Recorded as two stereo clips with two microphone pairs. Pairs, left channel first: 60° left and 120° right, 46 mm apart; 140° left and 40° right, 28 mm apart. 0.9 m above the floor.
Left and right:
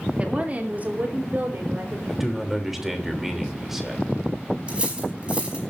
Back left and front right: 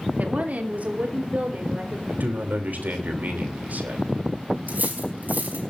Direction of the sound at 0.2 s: 60° right.